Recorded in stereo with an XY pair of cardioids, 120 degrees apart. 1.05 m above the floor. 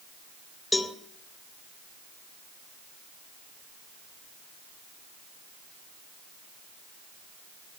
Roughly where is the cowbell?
Ahead left.